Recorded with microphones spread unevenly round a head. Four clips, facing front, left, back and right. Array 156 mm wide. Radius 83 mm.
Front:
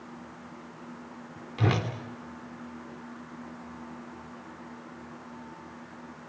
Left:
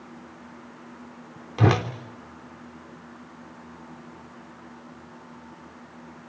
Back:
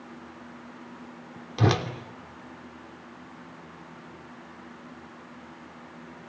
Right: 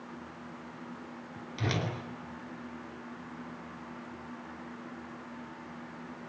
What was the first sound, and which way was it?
A whoosh, 115° left.